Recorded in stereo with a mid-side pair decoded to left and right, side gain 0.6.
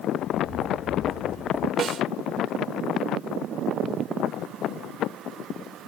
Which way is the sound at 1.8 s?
40° right.